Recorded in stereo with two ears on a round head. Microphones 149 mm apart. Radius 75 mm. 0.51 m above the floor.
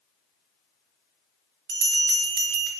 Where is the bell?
70° right (ahead or behind), 0.5 m.